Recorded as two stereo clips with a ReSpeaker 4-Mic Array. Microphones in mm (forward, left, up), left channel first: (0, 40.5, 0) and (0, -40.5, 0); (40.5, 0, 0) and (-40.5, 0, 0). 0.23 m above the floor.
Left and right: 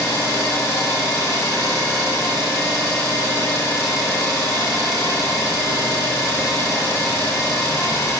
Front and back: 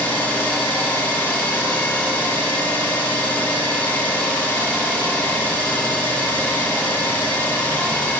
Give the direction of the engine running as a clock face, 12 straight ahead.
10 o'clock.